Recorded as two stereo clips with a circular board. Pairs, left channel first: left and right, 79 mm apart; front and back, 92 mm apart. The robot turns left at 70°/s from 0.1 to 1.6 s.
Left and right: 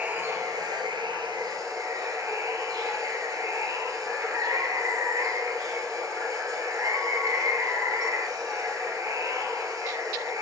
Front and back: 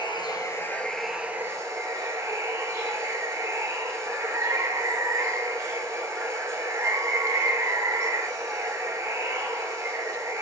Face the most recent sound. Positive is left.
turn(degrees=-130)